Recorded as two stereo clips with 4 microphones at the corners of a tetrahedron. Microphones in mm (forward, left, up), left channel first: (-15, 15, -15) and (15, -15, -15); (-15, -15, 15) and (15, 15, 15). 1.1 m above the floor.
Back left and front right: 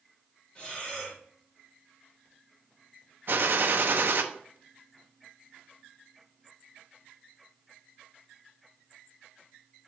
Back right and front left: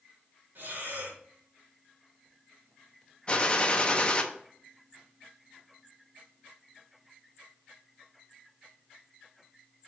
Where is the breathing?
75° left, 2.5 m.